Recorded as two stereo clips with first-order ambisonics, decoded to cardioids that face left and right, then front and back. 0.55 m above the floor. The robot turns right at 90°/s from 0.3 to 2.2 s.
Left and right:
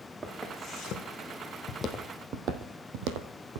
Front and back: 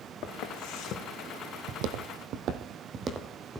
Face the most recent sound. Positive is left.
turn(degrees=-95)